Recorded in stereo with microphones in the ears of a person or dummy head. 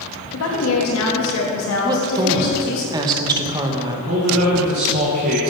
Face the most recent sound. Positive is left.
turn(degrees=-50)  # may be behind; listen again after turning